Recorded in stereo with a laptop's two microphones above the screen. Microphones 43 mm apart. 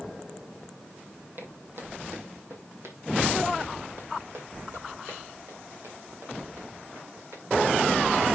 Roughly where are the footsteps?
Right.